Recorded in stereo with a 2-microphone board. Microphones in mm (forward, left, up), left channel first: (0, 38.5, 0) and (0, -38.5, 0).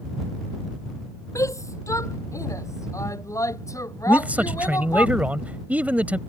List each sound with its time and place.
1.4 s a shout: 40° left (ahead or behind); by 5.1 s 45° left (ahead or behind)
4.1 s a man speaking: 20° right (ahead or behind)